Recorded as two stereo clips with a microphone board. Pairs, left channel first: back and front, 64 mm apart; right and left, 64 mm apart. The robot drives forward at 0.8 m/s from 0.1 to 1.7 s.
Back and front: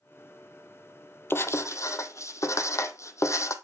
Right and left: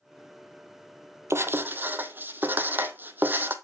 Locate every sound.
1.3 s writing: 130° left, 0.7 m; by 3.5 s 150° left, 0.9 m